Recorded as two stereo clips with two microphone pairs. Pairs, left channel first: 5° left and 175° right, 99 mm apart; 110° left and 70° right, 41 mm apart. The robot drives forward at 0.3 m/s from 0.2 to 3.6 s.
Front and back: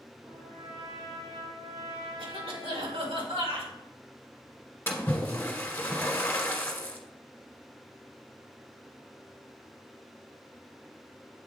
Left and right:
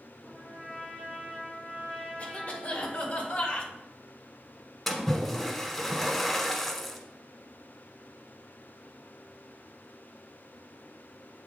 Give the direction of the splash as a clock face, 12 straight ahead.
11 o'clock.